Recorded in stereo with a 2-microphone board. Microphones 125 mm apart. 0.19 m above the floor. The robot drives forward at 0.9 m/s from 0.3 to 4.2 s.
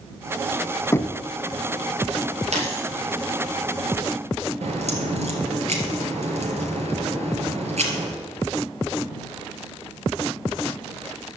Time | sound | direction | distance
0.9 | knocking | 25° left (ahead or behind) | 0.8 m
2.5 | a dropped coin | 65° right (ahead or behind) | 5.5 m
4.6 | a crack | 70° right (ahead or behind) | 3 m